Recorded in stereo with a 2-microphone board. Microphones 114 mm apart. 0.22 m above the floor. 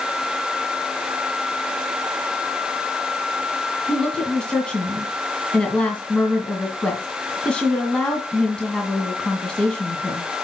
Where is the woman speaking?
10° left (ahead or behind), 2.0 m.